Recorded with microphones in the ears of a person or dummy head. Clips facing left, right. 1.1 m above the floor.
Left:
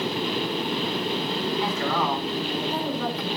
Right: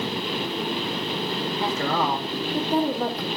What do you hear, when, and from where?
1.6 s a woman speaking: 30° right (ahead or behind), 2.5 m